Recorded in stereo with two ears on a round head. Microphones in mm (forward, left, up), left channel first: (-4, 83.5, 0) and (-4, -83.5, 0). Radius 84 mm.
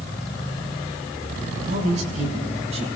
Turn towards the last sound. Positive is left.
turn(degrees=-35)  # may be behind; listen again after turning